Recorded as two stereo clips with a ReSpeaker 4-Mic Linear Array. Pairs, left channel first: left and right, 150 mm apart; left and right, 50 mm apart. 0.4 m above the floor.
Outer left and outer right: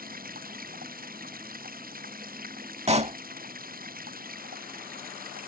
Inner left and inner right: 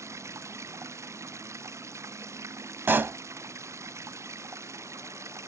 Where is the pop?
45° right (ahead or behind).